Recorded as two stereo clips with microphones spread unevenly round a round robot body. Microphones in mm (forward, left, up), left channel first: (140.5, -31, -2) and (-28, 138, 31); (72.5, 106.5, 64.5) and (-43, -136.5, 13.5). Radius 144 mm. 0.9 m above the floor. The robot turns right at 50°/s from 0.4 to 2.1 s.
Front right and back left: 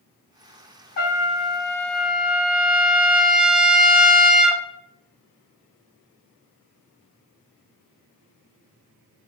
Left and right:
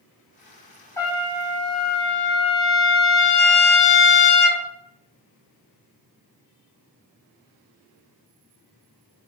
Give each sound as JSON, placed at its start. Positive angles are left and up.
{"t": 1.0, "sound": "a trumpet", "azimuth_deg": 0, "distance_m": 0.6}